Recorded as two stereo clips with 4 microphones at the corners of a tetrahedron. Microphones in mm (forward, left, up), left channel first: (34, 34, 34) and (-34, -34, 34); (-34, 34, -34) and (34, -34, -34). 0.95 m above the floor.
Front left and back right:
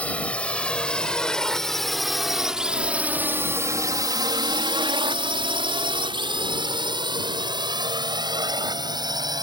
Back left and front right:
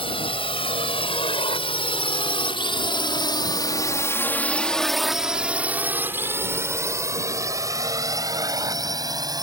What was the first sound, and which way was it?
A drone, 120° left.